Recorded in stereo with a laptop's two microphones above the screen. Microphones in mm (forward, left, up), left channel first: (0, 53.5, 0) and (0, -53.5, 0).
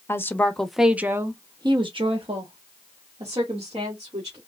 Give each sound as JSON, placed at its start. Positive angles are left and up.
{"t": 0.1, "sound": "a woman speaking", "side_deg": 25, "distance_m": 0.8}